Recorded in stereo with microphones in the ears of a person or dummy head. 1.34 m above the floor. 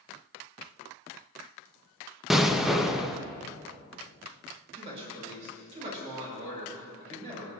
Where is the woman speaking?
35° right (ahead or behind), 5.5 m.